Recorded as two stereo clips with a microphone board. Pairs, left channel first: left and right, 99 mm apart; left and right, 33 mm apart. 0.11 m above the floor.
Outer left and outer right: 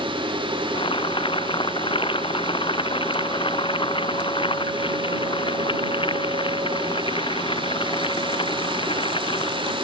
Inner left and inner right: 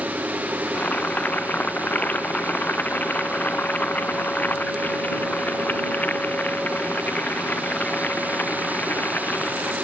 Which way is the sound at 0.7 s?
60° left (ahead or behind).